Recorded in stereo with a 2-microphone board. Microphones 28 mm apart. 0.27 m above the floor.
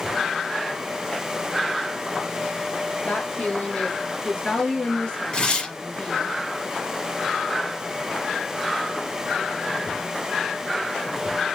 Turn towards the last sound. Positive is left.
turn(degrees=35)  # may be behind; listen again after turning